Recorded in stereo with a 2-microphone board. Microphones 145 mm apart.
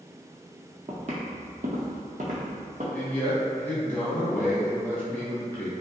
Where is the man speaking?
10° left (ahead or behind), 0.8 m.